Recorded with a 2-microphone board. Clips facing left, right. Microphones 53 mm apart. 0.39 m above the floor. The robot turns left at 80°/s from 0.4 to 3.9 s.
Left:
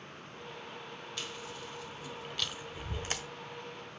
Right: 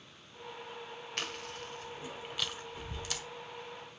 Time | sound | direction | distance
1.2 | chewing | 50° right (ahead or behind) | 1.2 m